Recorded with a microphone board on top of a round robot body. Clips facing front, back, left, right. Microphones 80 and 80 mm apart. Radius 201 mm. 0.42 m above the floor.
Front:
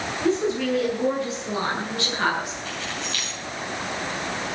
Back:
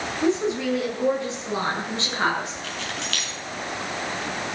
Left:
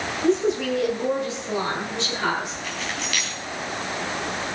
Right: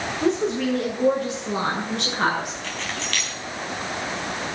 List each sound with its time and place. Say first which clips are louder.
0.2 s a woman speaking: even, left 1 dB; 110° right, 9 m; by 2.5 s 120° right, 9.5 m
2.6 s keys jangling: even, even; 170° left, 4 m